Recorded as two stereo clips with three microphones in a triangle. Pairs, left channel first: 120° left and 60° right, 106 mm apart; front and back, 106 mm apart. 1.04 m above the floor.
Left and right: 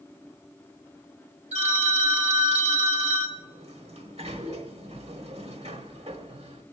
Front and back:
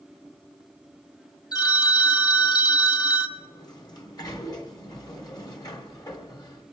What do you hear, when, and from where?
1.5 s a phone ringing: 50° right, 0.8 m
3.4 s a sliding door: 50° right, 1.2 m